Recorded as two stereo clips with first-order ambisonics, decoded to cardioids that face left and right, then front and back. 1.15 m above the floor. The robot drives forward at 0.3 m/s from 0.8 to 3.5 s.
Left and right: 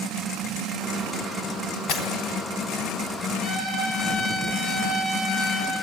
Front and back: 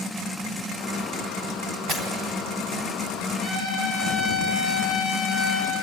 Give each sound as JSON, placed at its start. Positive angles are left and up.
{"t": 1.9, "sound": "breaking glass", "azimuth_deg": 130, "distance_m": 3.5}
{"t": 3.4, "sound": "a trumpet", "azimuth_deg": -150, "distance_m": 9.0}